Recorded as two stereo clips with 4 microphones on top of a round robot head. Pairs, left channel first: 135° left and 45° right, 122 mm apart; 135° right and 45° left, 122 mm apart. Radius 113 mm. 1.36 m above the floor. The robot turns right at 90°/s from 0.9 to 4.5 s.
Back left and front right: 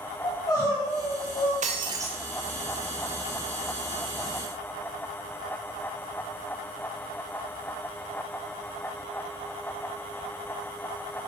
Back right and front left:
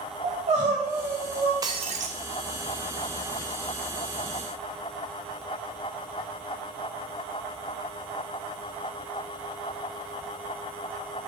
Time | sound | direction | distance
0.2 | crying | 70° left | 4.5 m
1.6 | breaking glass | 15° right | 0.5 m